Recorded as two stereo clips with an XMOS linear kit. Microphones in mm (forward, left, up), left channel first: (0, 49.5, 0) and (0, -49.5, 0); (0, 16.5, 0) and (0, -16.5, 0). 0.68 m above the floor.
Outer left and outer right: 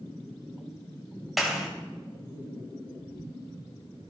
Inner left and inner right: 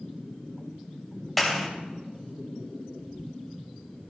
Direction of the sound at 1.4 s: Centre (ahead or behind).